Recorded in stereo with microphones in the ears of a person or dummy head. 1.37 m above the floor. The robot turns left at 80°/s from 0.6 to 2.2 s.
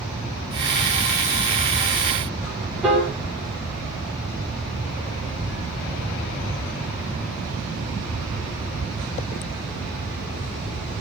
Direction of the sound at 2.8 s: 5° right (ahead or behind).